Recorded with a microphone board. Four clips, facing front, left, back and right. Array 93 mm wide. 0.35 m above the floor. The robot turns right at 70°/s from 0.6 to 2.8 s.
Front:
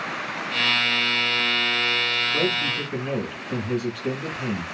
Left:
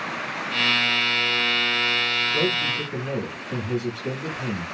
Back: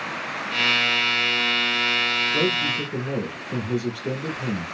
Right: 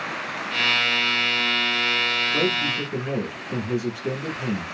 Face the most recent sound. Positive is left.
turn(degrees=-10)